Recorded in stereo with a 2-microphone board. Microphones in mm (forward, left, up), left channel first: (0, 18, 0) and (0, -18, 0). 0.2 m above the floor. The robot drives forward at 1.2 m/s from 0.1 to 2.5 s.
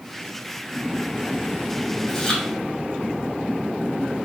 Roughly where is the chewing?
Centre.